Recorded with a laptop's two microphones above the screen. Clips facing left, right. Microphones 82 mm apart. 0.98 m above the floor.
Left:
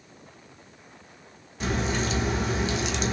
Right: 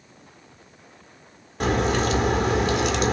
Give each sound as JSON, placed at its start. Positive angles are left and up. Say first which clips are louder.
{"t": 1.6, "sound": "a crack", "louder": "right 6 dB", "side_deg": -55, "distance_m": 1.4}